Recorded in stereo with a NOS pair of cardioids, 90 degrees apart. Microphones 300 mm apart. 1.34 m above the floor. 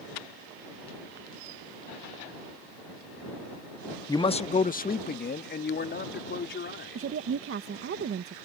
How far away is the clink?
No clink in this recording.